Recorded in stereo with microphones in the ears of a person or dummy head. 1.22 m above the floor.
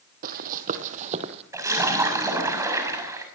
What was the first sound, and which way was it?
Running footsteps, 55° right (ahead or behind).